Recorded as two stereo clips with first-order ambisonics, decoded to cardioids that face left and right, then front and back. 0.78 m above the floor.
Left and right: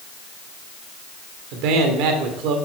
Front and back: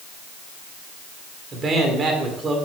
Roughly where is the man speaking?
Right.